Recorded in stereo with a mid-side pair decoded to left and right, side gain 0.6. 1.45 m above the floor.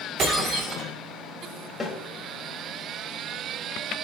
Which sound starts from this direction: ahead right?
Breaking glass, at 0.2 s.